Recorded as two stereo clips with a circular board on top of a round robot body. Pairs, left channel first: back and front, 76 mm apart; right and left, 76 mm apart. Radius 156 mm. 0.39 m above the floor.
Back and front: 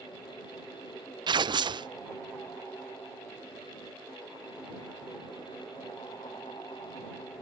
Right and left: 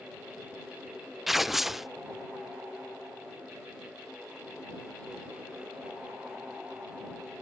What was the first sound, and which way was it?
Tearing paper, 5° left.